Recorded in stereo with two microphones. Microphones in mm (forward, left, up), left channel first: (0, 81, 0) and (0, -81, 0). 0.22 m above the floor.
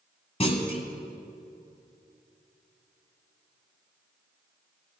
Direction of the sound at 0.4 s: 40° left (ahead or behind).